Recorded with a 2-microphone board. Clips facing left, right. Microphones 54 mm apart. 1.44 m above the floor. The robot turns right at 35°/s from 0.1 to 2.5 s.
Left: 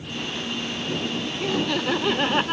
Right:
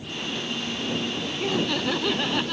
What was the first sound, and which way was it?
Laughter, 5° right.